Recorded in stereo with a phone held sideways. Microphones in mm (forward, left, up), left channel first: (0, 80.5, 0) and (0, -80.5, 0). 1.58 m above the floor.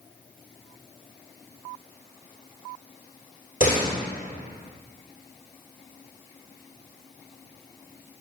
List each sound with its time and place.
3.6 s a door slam: 50° left (ahead or behind), 2.5 m